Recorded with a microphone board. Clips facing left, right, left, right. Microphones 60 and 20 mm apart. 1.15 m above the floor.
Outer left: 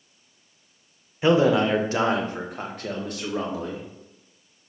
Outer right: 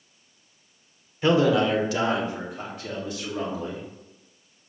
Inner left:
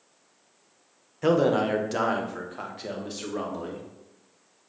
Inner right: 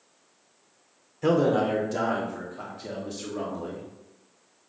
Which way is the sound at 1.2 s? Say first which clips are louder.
Outer left 1 dB, even; 20° left (ahead or behind).